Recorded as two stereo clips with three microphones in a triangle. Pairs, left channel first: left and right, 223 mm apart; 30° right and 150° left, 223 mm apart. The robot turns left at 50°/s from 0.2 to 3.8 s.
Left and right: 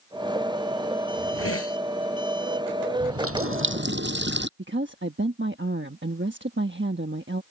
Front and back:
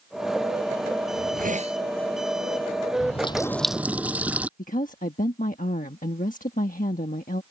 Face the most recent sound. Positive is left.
turn(degrees=-75)